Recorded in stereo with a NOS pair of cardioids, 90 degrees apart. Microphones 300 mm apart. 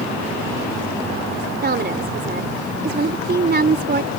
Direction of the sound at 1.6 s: 35° right.